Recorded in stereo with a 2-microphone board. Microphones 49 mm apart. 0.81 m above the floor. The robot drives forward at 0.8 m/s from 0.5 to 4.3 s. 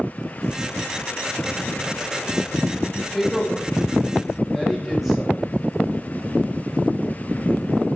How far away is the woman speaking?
About 2.5 m.